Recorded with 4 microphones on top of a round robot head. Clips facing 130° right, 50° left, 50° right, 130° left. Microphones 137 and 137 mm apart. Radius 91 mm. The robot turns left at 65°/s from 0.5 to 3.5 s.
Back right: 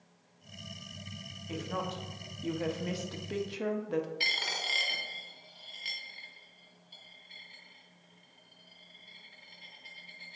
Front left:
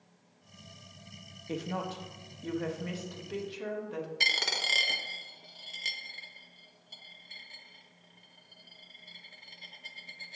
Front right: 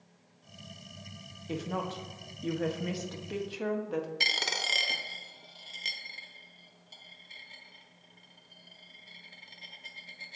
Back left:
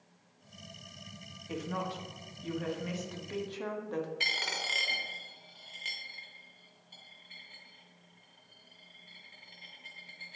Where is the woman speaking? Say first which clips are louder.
Front left 1 dB, front right 2 dB; straight ahead, 1.1 m; by 4.1 s 130° right, 1.1 m.